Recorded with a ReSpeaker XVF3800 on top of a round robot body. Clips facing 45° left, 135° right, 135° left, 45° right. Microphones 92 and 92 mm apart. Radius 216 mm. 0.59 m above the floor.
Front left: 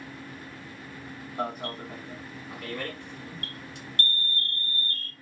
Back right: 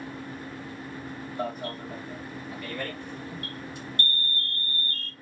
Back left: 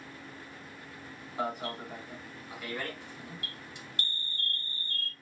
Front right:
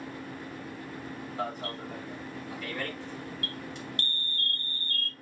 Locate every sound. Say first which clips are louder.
1.4 s an alarm: front left 1 dB, back left 2 dB; 55° left, 2.5 m